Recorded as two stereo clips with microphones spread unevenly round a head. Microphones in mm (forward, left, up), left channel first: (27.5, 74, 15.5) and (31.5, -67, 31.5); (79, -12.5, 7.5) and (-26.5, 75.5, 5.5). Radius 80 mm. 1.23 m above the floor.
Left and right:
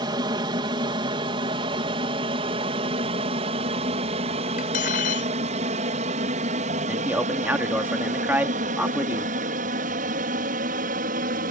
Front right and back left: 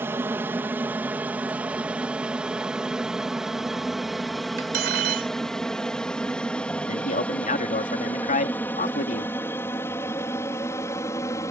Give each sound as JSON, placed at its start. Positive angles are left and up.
{"t": 0.0, "sound": "an aircraft", "azimuth_deg": -145}
{"t": 4.6, "sound": "cutlery clinking", "azimuth_deg": 135}
{"t": 6.9, "sound": "a man speaking", "azimuth_deg": -10}